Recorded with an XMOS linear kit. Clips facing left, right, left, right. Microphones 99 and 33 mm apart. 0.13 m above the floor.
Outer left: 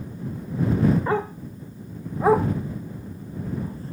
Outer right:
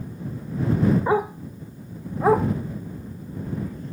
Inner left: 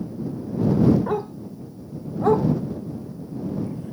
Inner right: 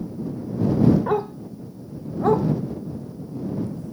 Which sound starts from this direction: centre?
A dog barking, at 1.1 s.